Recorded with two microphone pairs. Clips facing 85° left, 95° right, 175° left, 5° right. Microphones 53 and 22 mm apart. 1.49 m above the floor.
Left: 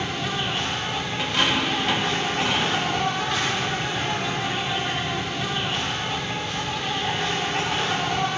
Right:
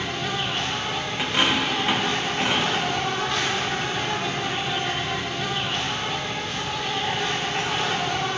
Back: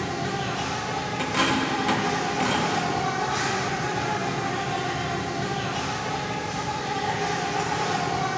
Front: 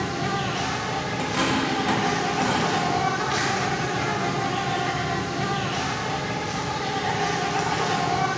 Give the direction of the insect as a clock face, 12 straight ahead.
12 o'clock.